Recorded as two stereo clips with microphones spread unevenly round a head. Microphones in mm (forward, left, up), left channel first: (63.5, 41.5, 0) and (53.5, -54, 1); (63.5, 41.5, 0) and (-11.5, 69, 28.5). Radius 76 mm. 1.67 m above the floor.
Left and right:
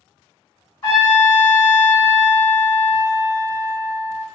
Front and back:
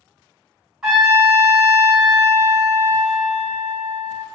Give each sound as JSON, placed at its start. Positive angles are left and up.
{"t": 0.8, "sound": "a trumpet", "azimuth_deg": 115, "distance_m": 1.7}